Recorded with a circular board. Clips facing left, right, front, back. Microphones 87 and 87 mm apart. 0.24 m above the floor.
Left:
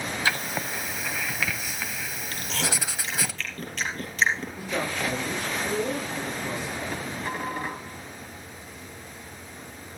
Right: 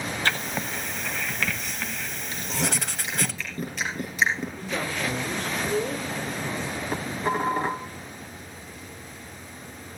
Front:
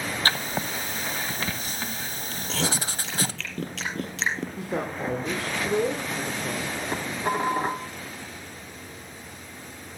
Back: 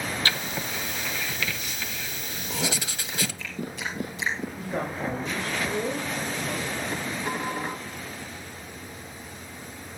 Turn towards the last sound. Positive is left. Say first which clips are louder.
# right 5 dB, front 3 dB
turn(degrees=-40)